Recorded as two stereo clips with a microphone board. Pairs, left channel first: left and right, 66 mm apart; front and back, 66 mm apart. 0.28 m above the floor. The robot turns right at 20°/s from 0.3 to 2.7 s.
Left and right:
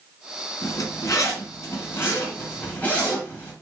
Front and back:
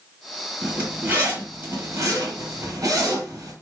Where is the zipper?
110° left, 1.4 m; by 3.5 s 155° left, 1.4 m.